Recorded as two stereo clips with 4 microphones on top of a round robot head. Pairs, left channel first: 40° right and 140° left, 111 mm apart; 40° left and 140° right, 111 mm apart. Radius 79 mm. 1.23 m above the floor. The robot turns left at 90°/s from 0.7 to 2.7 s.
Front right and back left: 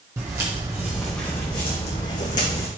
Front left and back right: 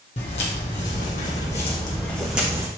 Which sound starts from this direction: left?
Footsteps, at 0.2 s.